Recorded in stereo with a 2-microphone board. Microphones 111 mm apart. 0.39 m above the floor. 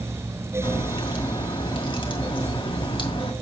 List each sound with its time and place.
0.6 s a crack: 50° left (ahead or behind), 2 m